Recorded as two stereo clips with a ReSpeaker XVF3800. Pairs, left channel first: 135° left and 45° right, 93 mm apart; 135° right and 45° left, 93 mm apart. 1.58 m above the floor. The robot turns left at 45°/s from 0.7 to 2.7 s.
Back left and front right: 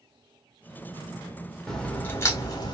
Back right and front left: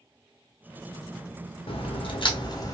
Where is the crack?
140° right, 0.7 m; by 2.7 s 175° left, 0.7 m.